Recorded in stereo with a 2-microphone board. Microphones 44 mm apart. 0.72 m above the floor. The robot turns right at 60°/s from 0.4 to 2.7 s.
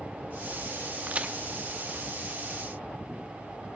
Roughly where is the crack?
Right.